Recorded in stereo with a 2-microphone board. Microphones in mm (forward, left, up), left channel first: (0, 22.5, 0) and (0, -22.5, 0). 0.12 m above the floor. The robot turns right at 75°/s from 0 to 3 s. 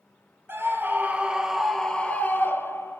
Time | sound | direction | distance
0.5 | a scream | 85° right | 2.0 m